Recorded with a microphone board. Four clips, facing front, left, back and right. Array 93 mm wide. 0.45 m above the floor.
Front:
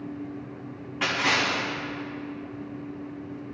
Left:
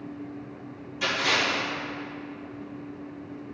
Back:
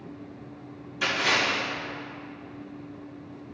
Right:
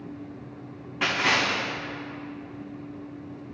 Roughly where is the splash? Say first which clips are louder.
Right 2 dB, even; ahead right.